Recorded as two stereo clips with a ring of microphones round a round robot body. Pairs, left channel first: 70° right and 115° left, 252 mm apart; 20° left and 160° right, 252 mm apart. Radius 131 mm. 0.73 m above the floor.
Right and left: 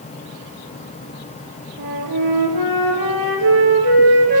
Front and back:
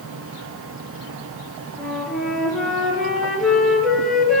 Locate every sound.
1.8 s a flute: 110° left, 6.5 m